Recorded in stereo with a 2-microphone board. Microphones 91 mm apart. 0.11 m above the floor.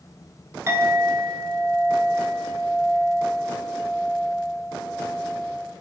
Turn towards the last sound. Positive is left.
turn(degrees=-30)  # may be behind; listen again after turning